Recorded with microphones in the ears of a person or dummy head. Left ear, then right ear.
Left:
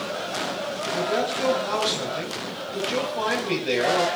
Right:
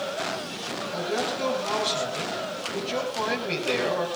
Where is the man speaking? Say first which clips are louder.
Left 3 dB; centre (ahead or behind), 6 m.